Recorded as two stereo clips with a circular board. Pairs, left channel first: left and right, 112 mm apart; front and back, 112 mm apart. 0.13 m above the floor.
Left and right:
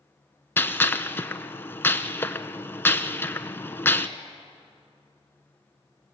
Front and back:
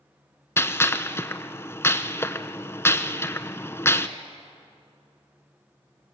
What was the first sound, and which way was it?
A gunshot, 40° left.